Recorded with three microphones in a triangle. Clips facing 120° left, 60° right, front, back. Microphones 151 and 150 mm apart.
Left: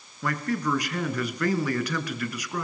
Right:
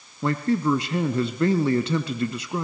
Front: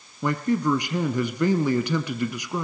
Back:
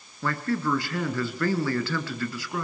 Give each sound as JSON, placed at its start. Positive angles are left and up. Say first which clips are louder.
{"t": 0.2, "sound": "a man speaking", "louder": "right 6 dB, front 4 dB", "azimuth_deg": -45, "distance_m": 1.4}